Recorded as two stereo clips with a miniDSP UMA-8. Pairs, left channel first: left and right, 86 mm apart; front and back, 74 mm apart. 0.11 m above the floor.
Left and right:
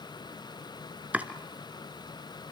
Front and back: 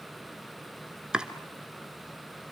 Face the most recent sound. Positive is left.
turn(degrees=-120)